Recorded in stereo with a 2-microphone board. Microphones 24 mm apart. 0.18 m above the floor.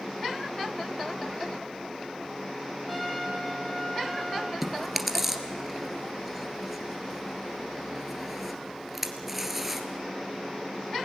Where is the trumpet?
5° left (ahead or behind), 7.5 m.